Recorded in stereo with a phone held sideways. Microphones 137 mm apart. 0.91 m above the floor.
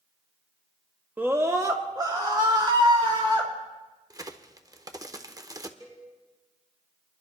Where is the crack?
25° right (ahead or behind), 0.7 m.